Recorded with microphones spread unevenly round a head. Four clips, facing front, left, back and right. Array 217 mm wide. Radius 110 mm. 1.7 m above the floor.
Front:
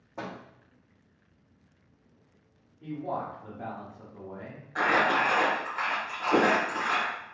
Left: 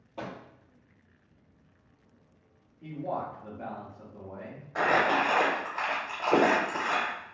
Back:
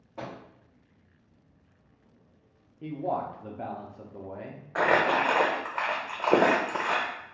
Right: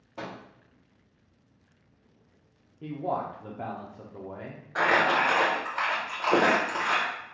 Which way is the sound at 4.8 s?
170° right.